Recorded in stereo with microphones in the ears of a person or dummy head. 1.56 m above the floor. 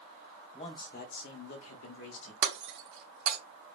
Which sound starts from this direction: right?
Breaking glass, at 2.4 s.